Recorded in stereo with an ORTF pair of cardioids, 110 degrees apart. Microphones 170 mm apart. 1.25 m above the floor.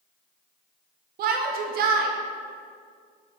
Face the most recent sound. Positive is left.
turn(degrees=-65)